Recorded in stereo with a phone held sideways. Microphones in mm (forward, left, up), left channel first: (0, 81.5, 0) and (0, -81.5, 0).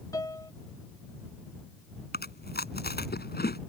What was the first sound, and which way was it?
A piano, 20° left (ahead or behind).